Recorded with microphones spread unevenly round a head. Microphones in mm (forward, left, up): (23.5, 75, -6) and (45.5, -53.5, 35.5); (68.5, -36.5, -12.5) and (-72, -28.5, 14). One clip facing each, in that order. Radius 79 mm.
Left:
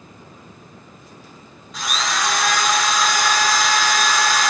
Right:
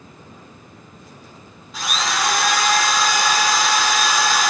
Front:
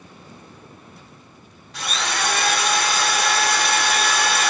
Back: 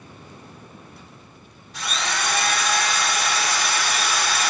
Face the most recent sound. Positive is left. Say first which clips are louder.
# right 1 dB, front 1 dB
turn(degrees=15)